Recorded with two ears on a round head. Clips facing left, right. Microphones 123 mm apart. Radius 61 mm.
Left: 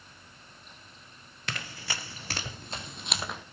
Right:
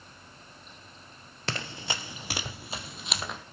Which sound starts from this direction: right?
Running footsteps, at 1.5 s.